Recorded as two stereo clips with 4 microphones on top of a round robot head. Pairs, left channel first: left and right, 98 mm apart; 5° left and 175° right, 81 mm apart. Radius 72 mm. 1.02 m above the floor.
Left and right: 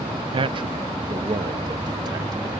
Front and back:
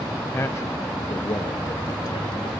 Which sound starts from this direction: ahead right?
A man speaking, at 0.3 s.